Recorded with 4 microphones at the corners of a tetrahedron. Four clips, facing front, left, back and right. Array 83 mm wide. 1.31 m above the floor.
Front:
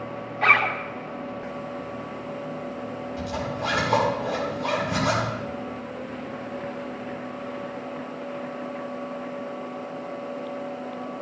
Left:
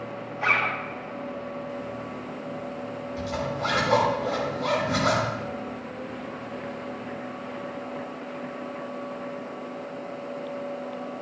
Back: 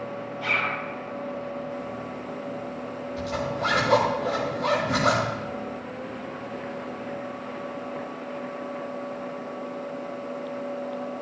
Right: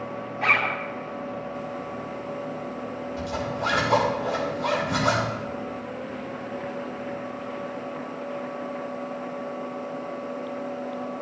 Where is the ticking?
No ticking in this recording.